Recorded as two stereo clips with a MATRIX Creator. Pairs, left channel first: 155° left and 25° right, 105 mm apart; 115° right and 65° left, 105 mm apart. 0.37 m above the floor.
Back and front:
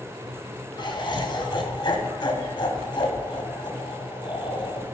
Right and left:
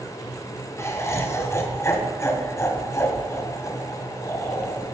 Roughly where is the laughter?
Behind.